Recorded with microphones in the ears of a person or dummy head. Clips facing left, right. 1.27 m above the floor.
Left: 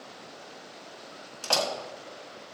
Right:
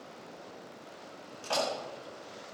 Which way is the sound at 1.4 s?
85° left.